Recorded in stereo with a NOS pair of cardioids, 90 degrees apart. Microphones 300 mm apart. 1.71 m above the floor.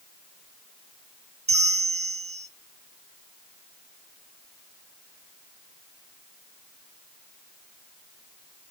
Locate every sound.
1.5 s a bell: 25° right, 0.8 m